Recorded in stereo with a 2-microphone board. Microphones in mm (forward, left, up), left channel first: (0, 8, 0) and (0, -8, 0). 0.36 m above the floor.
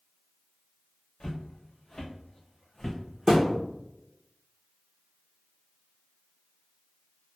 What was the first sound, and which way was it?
Footsteps, 50° left (ahead or behind).